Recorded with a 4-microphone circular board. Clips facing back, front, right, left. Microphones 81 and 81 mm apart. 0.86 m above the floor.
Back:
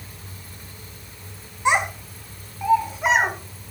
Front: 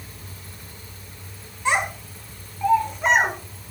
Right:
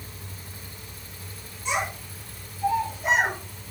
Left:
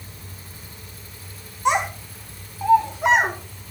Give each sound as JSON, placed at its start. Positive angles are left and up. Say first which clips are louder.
{"t": 1.6, "sound": "a child speaking", "louder": "back 2 dB, left 8 dB", "azimuth_deg": 110, "distance_m": 4.0}